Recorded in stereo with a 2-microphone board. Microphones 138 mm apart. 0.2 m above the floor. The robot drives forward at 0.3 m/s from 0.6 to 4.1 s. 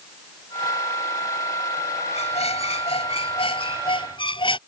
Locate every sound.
2.1 s a squeak: 50° left (ahead or behind); by 4.6 s 35° left (ahead or behind)